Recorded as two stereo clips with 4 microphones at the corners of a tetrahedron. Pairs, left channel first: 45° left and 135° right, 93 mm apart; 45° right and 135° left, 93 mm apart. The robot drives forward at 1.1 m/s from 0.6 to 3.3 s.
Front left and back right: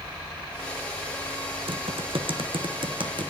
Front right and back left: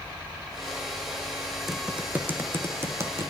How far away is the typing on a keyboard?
About 1.0 m.